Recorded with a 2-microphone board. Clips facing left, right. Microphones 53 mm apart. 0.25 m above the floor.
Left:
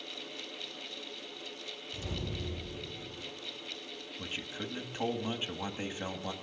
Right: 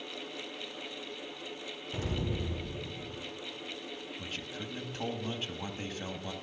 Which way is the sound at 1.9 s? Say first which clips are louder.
Right 5 dB; 85° right.